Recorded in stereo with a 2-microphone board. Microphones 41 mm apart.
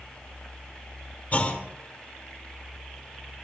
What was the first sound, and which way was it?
A clunk, 35° left (ahead or behind).